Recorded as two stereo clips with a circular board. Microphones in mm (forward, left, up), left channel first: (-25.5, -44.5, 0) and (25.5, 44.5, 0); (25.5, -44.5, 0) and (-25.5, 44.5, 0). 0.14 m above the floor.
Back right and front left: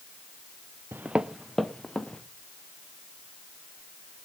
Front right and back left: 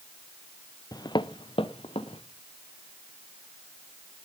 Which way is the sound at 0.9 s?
10° right.